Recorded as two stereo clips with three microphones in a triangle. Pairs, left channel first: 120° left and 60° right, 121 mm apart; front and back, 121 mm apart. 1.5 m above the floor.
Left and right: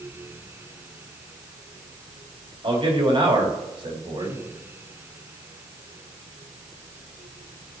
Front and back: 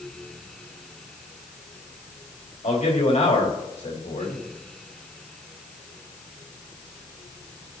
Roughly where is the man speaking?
Ahead.